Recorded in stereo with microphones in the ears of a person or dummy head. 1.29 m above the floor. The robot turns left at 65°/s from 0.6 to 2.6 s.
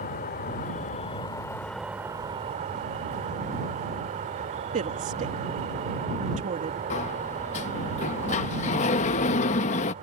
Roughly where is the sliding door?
Left.